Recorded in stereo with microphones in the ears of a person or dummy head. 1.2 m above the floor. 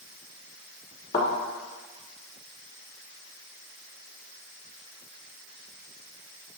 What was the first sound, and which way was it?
A thud, 25° left (ahead or behind).